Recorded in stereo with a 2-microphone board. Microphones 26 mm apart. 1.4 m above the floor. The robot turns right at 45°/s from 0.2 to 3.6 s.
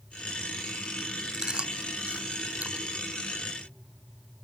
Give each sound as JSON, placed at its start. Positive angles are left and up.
{"t": 1.3, "sound": "chewing", "side_deg": -25}